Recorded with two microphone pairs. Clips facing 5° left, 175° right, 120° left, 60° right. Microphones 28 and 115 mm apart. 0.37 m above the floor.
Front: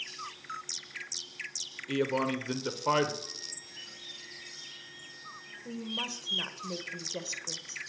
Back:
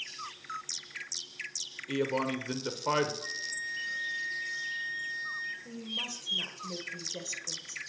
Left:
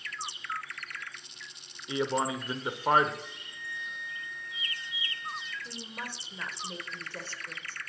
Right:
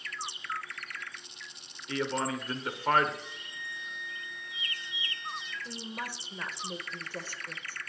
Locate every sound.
1.9 s a man speaking: 80° left, 0.8 m
3.2 s a flute: 155° left, 1.2 m
5.7 s a woman speaking: 10° left, 0.9 m